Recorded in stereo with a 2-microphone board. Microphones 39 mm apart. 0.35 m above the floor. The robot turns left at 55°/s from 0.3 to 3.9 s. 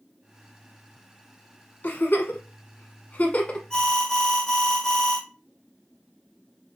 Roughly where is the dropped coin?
I don't hear a dropped coin.